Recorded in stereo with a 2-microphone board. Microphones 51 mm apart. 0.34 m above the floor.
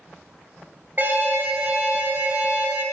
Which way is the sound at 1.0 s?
40° right (ahead or behind).